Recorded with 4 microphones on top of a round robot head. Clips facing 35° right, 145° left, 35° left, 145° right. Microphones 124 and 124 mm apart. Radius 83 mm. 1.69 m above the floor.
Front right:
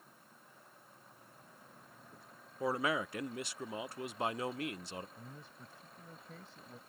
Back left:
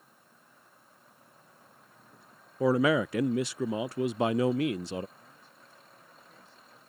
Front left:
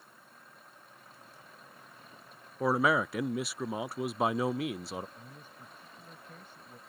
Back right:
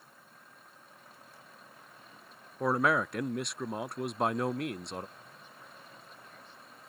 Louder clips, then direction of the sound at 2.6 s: Back left 10 dB, front left 1 dB; 125° left.